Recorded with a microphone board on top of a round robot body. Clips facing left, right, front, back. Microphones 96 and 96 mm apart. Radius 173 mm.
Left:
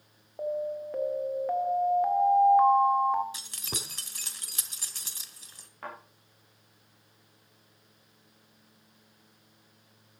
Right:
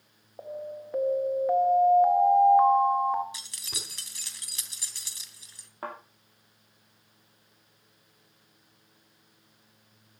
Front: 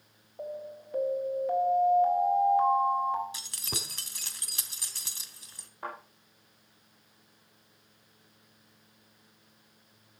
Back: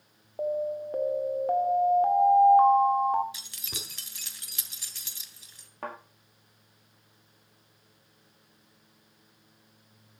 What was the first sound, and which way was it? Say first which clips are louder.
An alarm: left 6 dB, back 10 dB; straight behind.